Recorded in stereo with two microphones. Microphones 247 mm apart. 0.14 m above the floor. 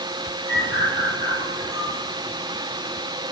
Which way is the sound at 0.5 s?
25° right (ahead or behind).